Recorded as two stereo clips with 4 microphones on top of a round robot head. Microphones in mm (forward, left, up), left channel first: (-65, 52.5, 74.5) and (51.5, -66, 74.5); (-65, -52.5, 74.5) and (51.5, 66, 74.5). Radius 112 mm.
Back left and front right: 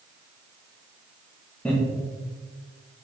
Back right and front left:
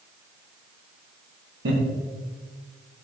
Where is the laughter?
50° left, 1.8 m.